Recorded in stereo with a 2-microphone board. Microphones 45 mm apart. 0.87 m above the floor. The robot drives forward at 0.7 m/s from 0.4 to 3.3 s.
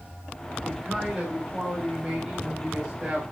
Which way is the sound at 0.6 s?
10° right (ahead or behind).